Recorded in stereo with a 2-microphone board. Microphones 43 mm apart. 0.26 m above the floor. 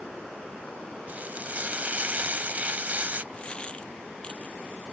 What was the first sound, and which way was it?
Frying, 40° right (ahead or behind).